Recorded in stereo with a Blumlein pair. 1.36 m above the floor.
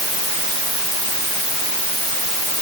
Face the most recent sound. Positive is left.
No sound to turn to.